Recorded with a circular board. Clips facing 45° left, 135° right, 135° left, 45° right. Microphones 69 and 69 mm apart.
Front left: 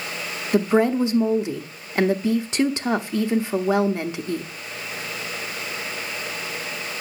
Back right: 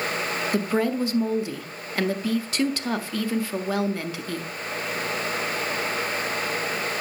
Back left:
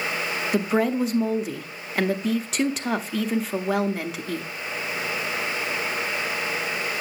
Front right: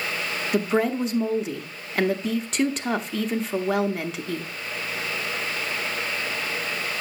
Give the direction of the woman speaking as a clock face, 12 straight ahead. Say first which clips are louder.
Front left 7 dB, even; 10 o'clock.